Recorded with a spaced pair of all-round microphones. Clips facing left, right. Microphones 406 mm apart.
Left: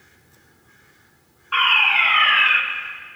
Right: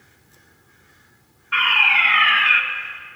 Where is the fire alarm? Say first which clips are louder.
Left 1 dB; 35° right (ahead or behind), 2.5 m.